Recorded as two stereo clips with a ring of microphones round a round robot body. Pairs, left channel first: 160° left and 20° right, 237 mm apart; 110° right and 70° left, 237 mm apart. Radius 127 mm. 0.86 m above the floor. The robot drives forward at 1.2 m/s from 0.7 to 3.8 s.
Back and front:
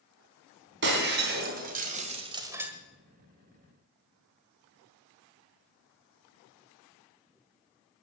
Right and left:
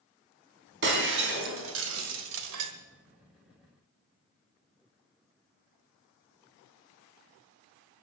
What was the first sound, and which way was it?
Breaking glass, 25° left.